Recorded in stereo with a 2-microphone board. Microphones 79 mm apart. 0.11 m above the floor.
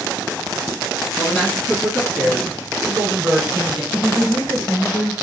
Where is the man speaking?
10° left (ahead or behind), 1.7 m; by 3.8 s 25° right (ahead or behind), 2 m.